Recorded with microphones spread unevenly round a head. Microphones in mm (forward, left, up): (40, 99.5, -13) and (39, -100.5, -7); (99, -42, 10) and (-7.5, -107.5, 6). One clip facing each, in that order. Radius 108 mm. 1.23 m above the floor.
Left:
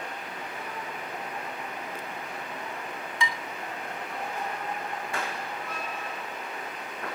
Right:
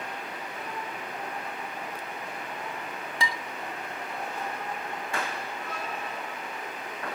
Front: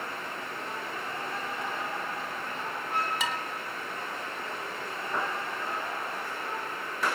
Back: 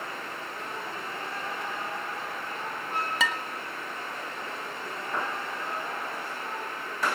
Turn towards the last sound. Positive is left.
turn(degrees=-150)